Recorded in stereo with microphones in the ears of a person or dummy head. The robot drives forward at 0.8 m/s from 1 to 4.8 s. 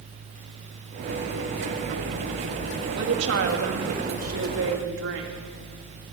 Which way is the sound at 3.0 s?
70° right (ahead or behind).